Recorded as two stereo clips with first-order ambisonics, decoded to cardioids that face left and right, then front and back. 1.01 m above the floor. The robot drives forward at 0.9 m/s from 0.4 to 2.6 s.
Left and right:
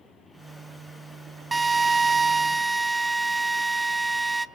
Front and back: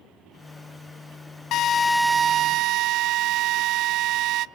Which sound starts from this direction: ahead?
A drill, at 1.5 s.